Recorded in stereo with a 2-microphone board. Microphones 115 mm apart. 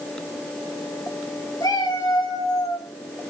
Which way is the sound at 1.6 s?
35° left (ahead or behind).